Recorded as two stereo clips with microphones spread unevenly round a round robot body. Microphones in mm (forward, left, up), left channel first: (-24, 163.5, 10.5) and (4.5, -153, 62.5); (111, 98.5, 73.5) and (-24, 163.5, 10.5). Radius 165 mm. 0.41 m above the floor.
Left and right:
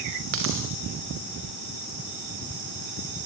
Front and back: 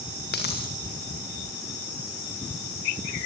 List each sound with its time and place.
0.3 s a dropped coin: 35° right, 4.5 m